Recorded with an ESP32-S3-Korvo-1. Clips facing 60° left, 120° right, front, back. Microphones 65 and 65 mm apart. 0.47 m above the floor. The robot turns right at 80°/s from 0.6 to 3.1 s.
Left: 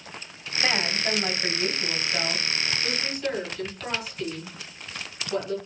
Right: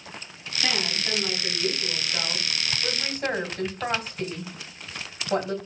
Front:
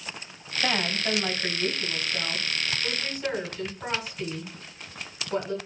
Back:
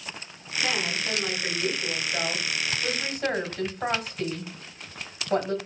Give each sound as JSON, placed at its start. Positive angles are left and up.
{"t": 0.6, "sound": "a woman speaking", "azimuth_deg": 10, "distance_m": 2.0}